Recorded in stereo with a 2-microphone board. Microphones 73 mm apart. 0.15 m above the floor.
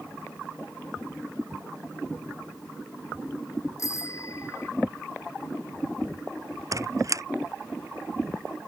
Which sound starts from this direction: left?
A bicycle bell, at 3.8 s.